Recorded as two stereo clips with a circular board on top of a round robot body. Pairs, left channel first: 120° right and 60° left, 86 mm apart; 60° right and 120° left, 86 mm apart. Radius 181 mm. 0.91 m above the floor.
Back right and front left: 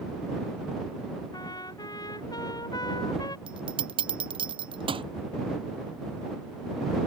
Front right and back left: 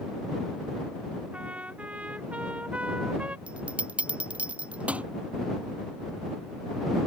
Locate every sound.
1.3 s a trumpet: 165° right
3.5 s a bell: 45° left